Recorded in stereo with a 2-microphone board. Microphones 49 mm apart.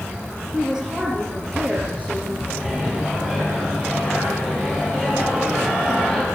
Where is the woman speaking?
15° right (ahead or behind), 7 m; by 2.4 s 35° right (ahead or behind), 7 m.